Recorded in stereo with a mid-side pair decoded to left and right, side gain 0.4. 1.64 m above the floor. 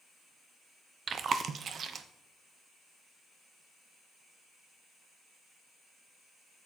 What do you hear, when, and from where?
1.1 s chewing: 55° right, 1.2 m